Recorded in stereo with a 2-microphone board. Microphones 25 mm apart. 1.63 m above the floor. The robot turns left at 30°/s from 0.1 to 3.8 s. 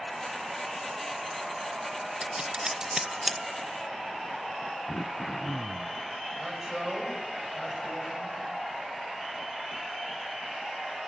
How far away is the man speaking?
About 8 m.